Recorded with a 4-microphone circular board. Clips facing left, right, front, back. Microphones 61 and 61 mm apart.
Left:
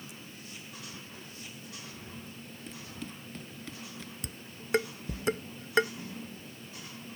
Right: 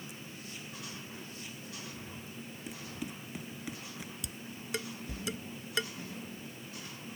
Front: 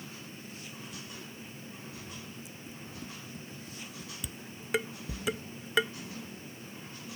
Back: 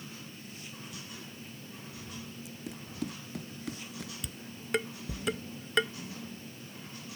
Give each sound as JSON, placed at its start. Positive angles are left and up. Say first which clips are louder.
{"t": 2.7, "sound": "running footsteps", "louder": "right 1 dB, back 8 dB", "azimuth_deg": -170}
{"t": 4.2, "sound": "dishes clattering", "louder": "even, even", "azimuth_deg": 85}